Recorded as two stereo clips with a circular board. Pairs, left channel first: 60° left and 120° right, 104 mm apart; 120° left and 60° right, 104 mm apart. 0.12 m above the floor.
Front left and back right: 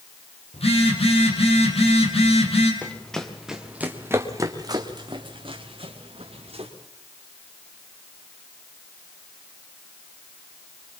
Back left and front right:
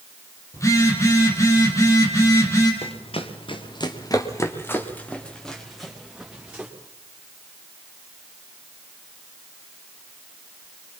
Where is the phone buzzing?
60° left, 3.5 m.